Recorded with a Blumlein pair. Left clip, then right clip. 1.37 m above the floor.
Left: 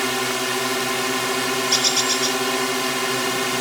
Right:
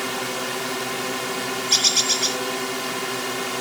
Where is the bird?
5° right.